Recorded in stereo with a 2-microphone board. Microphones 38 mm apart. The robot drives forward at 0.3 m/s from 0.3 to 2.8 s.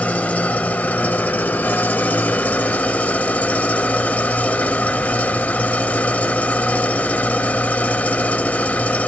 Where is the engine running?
45° left (ahead or behind), 0.8 m; by 9.1 s 50° left (ahead or behind), 0.8 m.